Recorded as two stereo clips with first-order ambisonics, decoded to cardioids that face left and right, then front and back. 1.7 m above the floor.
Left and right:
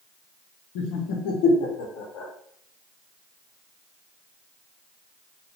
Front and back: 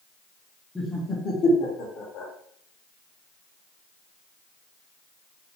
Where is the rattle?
No rattle in this recording.